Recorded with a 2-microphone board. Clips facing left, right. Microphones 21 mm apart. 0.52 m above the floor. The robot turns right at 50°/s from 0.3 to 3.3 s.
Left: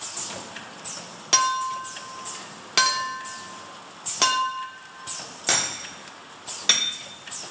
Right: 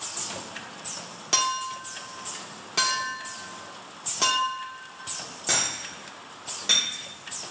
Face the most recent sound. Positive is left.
turn(degrees=40)  # may be behind; listen again after turning